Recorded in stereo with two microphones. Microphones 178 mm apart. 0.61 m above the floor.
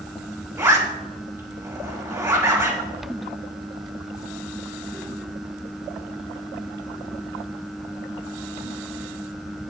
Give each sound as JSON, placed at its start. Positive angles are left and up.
{"t": 0.6, "sound": "a zipper", "side_deg": -20, "distance_m": 4.0}